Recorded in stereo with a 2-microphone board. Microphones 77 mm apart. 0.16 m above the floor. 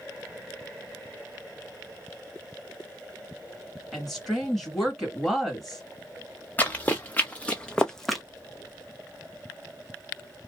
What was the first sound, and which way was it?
A woman speaking, centre (ahead or behind).